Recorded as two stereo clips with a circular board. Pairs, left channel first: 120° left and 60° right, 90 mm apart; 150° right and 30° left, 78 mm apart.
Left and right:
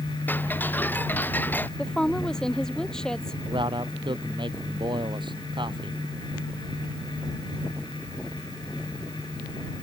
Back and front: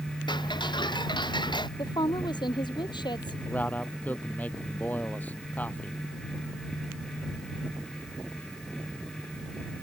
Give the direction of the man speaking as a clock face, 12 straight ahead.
3 o'clock.